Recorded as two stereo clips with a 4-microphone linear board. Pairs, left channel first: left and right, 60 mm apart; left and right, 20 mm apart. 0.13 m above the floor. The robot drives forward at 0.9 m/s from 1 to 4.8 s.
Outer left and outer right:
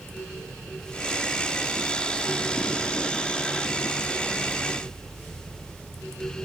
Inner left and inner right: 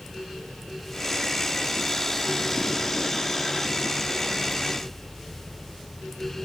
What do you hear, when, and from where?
Only background noise.